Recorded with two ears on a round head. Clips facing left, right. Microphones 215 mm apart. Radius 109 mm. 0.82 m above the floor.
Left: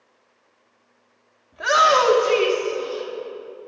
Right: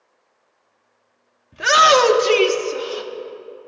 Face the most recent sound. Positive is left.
turn(degrees=-70)  # may be behind; listen again after turning